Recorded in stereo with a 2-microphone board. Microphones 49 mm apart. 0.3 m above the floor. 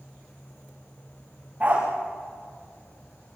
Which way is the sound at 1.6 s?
30° right (ahead or behind).